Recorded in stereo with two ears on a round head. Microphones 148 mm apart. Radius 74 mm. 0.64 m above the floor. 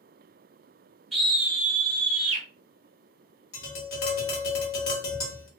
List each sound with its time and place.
1.1 s a scream: centre (ahead or behind), 1.2 m; by 2.5 s 30° right (ahead or behind), 1.1 m
3.5 s tapping: 65° left (ahead or behind), 1.3 m